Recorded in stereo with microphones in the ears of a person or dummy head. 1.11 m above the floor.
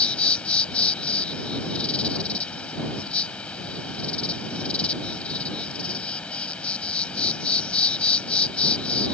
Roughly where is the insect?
Centre.